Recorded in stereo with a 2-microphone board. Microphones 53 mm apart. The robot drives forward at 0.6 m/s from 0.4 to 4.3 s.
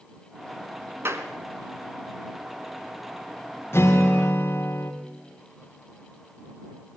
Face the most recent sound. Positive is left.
turn(degrees=40)  # may be behind; listen again after turning